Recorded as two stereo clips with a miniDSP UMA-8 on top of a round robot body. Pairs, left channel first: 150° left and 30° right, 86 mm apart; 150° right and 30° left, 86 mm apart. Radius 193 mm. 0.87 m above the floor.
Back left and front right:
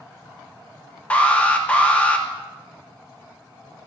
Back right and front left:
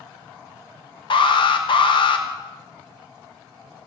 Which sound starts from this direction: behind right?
An alarm, at 1.1 s.